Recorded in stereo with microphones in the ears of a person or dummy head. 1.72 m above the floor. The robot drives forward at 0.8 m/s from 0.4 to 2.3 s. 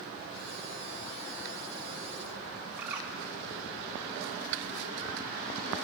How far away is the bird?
About 4 m.